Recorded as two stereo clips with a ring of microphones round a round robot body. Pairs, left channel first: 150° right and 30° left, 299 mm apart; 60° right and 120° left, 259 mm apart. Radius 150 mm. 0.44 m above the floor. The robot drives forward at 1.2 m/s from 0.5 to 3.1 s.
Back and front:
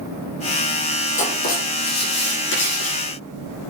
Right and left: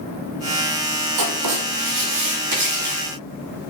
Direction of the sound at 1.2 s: 145° left.